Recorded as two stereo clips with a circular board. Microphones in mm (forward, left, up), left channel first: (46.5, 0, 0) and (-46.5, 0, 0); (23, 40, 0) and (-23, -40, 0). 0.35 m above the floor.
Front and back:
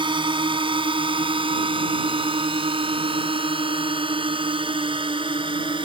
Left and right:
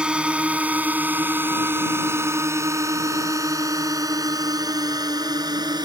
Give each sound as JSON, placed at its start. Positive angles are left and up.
{"t": 0.0, "sound": "a drone", "azimuth_deg": 160}